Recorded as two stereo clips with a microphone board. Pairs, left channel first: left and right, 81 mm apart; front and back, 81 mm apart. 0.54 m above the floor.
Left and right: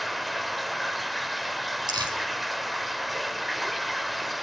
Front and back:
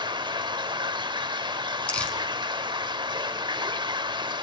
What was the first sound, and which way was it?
Running water, straight behind.